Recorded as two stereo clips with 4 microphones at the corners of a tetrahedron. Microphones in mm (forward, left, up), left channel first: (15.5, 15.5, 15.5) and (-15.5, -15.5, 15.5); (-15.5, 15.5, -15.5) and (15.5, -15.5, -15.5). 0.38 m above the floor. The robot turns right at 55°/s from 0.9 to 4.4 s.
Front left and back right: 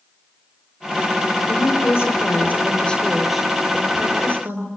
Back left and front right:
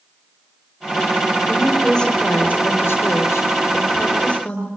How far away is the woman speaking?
About 7 m.